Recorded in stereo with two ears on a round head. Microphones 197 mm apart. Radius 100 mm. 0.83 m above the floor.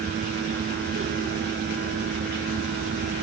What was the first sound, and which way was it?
Only background noise.